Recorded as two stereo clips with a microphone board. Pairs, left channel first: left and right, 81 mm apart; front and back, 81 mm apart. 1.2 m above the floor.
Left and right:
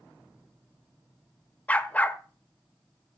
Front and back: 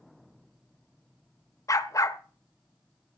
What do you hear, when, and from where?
1.7 s a dog barking: 25° left, 1.2 m